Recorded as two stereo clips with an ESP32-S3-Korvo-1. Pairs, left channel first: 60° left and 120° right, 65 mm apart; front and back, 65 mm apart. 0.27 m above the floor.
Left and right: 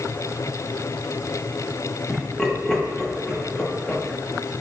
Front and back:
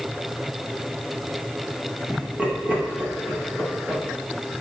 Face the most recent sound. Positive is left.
turn(degrees=135)